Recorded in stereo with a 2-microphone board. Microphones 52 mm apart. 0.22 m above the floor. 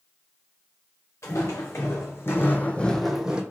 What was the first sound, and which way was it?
Footsteps, 75° left (ahead or behind).